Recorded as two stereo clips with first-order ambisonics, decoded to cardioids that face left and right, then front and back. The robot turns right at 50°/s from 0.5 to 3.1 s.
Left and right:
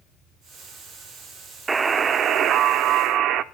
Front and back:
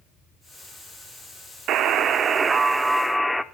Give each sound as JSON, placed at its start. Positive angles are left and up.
{"t": 1.7, "sound": "a buzzer", "azimuth_deg": -160, "distance_m": 0.6}